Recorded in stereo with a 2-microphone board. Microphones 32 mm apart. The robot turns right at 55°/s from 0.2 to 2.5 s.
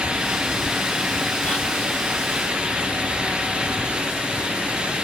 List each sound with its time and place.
1.4 s whispering: 45° left (ahead or behind), 2 m